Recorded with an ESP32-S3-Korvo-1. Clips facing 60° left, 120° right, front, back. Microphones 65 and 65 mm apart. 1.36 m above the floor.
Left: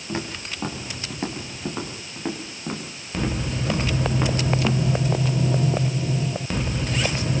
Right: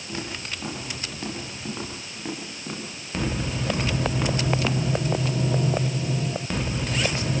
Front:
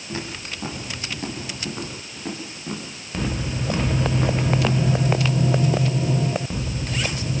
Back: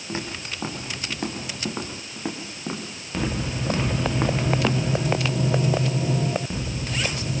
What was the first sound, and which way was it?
Footsteps, 115° left.